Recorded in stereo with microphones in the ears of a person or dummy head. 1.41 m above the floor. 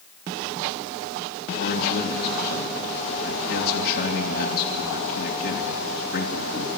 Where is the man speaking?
55° left (ahead or behind), 2.5 m.